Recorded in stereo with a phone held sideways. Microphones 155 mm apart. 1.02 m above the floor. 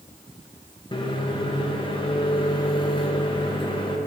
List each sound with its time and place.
0.9 s a microwave: 30° left (ahead or behind), 0.8 m